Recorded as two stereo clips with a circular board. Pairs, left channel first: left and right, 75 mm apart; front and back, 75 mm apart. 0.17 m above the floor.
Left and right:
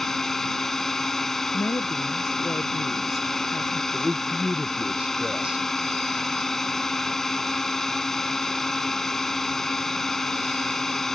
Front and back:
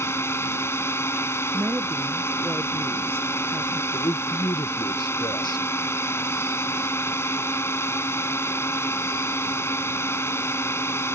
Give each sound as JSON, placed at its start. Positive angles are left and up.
{"t": 0.0, "sound": "a drone", "azimuth_deg": 5}
{"t": 1.5, "sound": "a woman speaking", "azimuth_deg": 125}
{"t": 3.9, "sound": "a man speaking", "azimuth_deg": -15}